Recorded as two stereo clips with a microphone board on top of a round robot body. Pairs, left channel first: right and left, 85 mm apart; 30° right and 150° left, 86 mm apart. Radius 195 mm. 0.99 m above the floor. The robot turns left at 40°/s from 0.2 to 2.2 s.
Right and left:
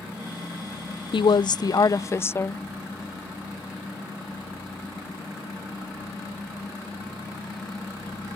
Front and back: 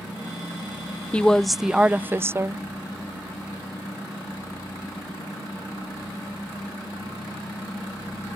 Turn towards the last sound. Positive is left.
turn(degrees=-150)